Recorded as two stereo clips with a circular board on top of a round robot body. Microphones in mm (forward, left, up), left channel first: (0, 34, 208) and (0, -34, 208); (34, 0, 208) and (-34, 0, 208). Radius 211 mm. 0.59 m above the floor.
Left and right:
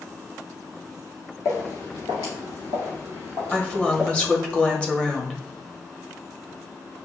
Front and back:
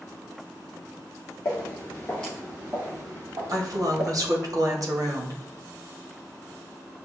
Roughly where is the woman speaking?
Behind.